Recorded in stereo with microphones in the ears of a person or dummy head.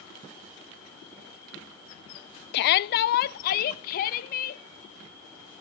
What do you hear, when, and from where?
2.5 s a shout: 60° left (ahead or behind), 0.7 m; by 4.6 s 50° left (ahead or behind), 2 m